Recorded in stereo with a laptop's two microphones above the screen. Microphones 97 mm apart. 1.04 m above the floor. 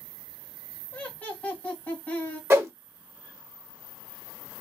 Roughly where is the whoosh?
Right.